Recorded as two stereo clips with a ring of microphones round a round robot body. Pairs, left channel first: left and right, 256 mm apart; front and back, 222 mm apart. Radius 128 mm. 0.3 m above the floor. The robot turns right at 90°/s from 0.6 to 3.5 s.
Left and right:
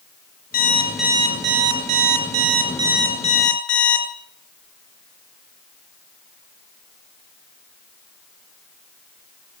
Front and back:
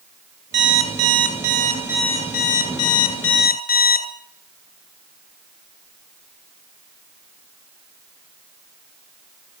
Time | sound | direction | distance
0.5 | an alarm clock | 145° left | 2.5 m